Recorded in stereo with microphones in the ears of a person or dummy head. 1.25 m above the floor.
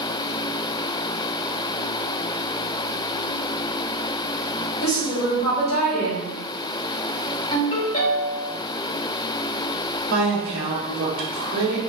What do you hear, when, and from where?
4.8 s a woman speaking: 35° left (ahead or behind), 1.9 m
7.5 s a ringtone: 40° left (ahead or behind), 1.9 m
10.1 s a woman speaking: 70° right (ahead or behind), 1.4 m